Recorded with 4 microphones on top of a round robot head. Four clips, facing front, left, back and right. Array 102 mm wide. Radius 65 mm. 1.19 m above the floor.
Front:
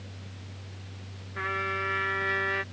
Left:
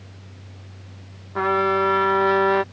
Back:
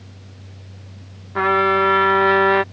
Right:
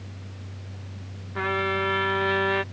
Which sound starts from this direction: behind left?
A trumpet, at 1.4 s.